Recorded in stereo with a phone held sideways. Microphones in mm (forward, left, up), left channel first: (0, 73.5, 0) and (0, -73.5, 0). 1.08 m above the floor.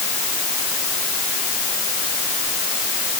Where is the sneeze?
No sneeze in this recording.